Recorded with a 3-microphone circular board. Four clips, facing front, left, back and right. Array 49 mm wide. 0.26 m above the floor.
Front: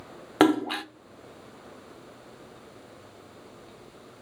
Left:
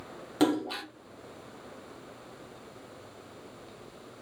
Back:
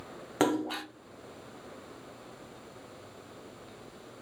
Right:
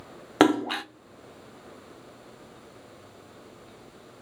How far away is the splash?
About 0.5 m.